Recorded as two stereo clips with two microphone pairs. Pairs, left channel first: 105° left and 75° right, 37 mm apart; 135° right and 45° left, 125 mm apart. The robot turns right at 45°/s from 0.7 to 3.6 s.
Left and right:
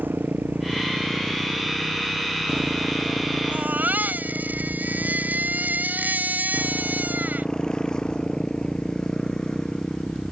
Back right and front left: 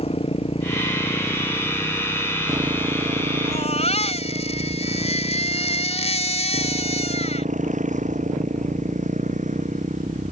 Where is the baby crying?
110° right; by 7.5 s 105° right.